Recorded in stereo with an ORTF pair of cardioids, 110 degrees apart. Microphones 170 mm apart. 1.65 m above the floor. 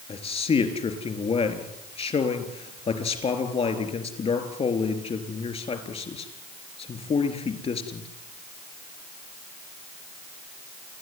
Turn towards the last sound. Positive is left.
turn(degrees=35)